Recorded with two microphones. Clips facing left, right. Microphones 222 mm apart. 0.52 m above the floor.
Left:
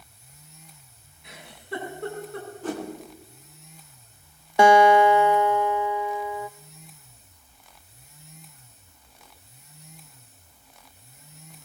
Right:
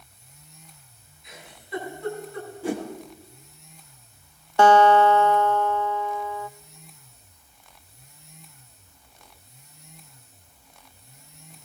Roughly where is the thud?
I don't hear a thud.